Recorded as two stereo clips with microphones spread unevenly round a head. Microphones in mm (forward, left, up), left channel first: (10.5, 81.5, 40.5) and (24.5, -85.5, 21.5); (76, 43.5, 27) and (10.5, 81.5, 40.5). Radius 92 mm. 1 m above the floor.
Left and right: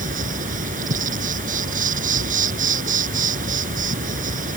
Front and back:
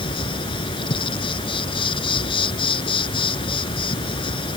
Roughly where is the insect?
Ahead right.